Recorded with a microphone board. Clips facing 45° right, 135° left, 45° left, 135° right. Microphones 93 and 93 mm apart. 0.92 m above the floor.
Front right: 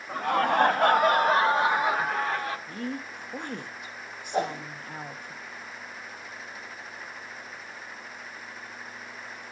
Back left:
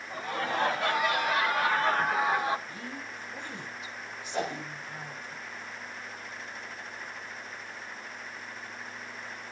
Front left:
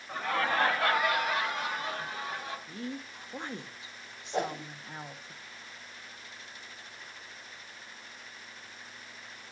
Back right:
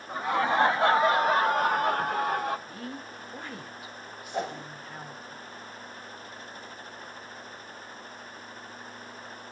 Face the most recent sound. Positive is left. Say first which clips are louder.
# front right 4 dB, front left 1 dB
turn(degrees=20)